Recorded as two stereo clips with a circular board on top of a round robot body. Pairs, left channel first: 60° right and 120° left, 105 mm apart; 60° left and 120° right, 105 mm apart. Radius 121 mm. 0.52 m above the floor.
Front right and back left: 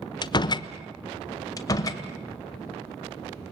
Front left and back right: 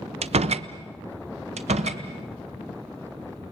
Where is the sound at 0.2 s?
105° right, 1.1 m.